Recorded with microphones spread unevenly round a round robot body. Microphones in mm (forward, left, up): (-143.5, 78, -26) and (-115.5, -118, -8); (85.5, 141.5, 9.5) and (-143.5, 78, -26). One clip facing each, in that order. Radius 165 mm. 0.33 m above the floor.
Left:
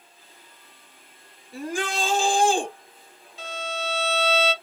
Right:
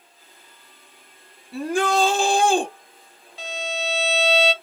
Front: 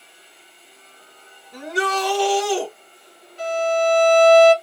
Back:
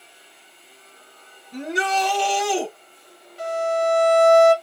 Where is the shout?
95° right, 2.5 m.